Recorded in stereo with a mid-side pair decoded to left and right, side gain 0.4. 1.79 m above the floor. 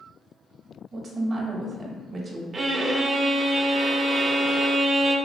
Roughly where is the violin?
Ahead right.